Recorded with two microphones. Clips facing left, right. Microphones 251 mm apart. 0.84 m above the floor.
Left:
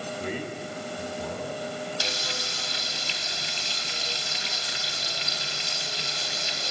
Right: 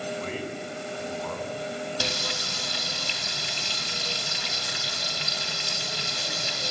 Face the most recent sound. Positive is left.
turn(degrees=-65)  # may be behind; listen again after turning